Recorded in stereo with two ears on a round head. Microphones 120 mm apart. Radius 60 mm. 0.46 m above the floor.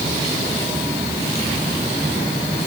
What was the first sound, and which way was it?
Only background noise.